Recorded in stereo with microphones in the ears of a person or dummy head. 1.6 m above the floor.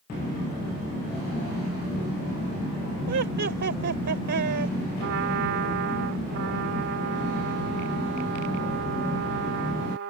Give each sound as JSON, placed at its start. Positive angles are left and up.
{"t": 3.1, "sound": "laughter", "side_deg": -60}
{"t": 5.0, "sound": "a trumpet", "side_deg": -80}